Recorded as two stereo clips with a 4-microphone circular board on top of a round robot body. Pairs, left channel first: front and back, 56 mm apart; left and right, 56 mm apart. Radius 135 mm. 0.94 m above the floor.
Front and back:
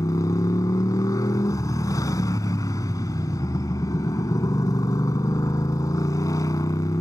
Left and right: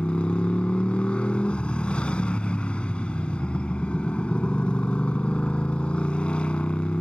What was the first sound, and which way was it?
A motorcycle, 20° left.